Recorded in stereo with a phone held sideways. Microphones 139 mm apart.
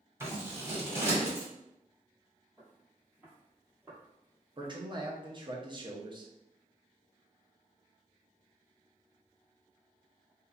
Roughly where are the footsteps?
Centre.